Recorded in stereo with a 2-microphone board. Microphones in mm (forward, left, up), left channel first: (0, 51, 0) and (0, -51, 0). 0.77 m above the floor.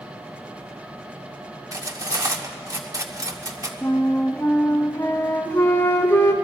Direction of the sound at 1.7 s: 35° right (ahead or behind).